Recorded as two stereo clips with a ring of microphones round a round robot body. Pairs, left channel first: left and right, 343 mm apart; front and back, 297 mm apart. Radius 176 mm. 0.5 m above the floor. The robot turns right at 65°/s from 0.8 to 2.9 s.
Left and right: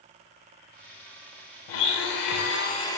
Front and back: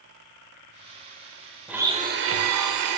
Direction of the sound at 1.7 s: 90° left.